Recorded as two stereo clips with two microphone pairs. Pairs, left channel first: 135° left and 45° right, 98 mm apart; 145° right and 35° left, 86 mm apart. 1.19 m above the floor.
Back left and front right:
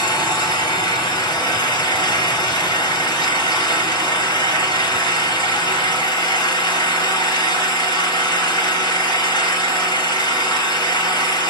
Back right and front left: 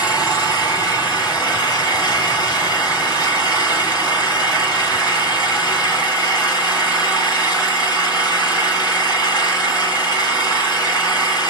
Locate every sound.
0.0 s an engine running: straight behind, 1.4 m